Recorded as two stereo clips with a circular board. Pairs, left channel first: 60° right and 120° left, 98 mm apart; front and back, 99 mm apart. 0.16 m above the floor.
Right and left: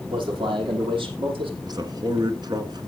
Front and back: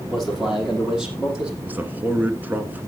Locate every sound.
0.1 s a man speaking: 90° left, 8 m; by 1.5 s 100° left, 6.5 m
1.6 s a man speaking: 115° left, 1.7 m